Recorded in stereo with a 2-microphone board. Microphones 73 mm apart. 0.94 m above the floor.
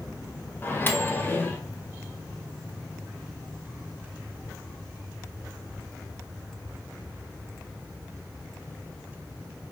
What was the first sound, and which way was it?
A microwave, 25° left (ahead or behind).